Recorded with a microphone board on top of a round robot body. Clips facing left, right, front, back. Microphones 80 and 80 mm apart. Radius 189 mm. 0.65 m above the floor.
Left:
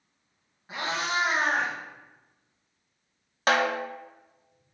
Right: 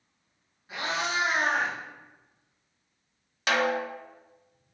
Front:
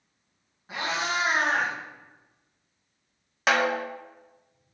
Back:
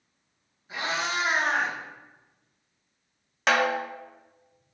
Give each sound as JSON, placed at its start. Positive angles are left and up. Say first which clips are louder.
{"t": 0.7, "sound": "a cat meowing", "louder": "left 1 dB, front 1 dB", "azimuth_deg": 30, "distance_m": 1.5}
{"t": 3.5, "sound": "a snare drum", "louder": "left 2 dB, even", "azimuth_deg": 85, "distance_m": 0.8}